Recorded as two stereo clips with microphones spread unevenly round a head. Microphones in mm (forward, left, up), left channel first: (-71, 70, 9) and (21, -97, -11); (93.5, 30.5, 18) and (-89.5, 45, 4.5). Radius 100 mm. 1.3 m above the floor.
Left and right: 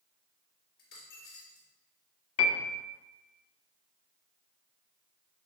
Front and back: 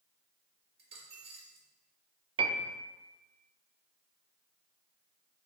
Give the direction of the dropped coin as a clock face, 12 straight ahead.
8 o'clock.